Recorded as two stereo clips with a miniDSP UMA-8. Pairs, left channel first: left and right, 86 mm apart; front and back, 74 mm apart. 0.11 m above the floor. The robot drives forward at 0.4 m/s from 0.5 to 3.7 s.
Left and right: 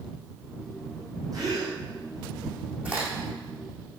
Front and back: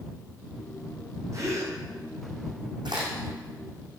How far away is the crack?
About 6 m.